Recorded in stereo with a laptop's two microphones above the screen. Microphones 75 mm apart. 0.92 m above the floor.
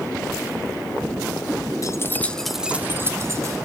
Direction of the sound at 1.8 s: 45° left (ahead or behind).